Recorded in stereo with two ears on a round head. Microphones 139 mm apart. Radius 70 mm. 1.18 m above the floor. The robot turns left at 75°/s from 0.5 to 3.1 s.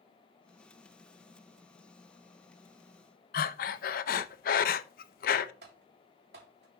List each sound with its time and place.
3.3 s breathing: 60° left (ahead or behind), 0.6 m
5.6 s typing on a keyboard: 70° right (ahead or behind), 3 m